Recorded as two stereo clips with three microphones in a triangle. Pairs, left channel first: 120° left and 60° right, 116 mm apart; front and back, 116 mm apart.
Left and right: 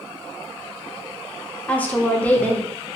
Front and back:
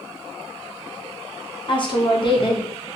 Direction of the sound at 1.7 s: 45° left.